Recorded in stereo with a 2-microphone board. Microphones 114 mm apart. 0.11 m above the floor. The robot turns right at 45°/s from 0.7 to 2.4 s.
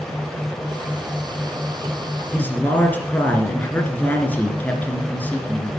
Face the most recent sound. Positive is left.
turn(degrees=15)  # may be behind; listen again after turning